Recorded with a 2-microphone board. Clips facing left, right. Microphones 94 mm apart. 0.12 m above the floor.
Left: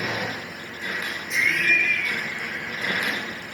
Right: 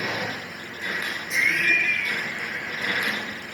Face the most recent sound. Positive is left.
turn(degrees=0)  # may be behind; listen again after turning